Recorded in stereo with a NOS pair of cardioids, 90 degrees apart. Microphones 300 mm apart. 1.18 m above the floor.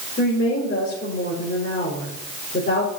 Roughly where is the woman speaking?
Ahead left.